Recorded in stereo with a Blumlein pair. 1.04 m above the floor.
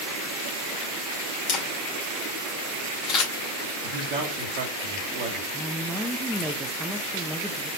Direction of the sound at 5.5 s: 5° right.